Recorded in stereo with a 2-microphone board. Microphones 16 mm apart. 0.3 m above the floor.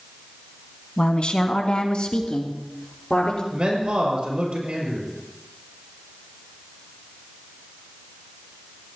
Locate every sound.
1.0 s a woman speaking: 65° left (ahead or behind), 2 m; by 3.4 s 40° left (ahead or behind), 4.5 m
3.5 s a man speaking: 80° right, 6 m